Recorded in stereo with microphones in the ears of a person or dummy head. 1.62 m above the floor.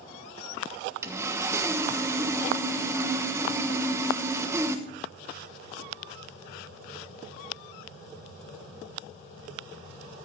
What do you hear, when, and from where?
1.0 s sawing: 15° right (ahead or behind), 1.2 m